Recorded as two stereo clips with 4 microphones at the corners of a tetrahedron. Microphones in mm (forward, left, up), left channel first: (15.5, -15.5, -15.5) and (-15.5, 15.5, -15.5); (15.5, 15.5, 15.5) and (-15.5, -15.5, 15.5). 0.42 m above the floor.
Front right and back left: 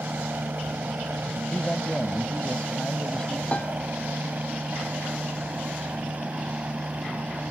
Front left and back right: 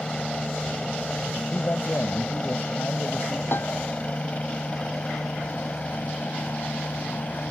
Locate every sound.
0.0 s a helicopter: 115° left; by 7.5 s 85° left
1.5 s a man speaking: 20° left
3.5 s a piano: 15° left